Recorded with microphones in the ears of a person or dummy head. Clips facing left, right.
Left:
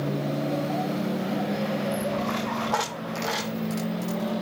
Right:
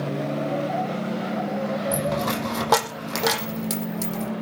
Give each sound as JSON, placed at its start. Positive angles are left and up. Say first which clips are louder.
{"t": 1.9, "sound": "a dropped coin", "louder": "right 2 dB", "side_deg": -80, "distance_m": 6.0}